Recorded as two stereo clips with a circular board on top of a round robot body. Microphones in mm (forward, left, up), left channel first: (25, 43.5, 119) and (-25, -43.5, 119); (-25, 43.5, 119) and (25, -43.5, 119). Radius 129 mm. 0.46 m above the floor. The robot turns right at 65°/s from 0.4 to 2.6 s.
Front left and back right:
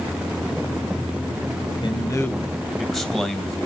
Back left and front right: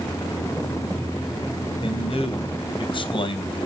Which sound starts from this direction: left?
A man speaking, at 1.8 s.